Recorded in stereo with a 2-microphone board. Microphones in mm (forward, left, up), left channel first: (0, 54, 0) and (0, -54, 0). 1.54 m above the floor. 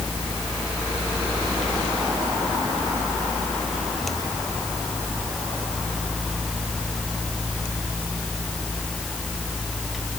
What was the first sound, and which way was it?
Only background noise.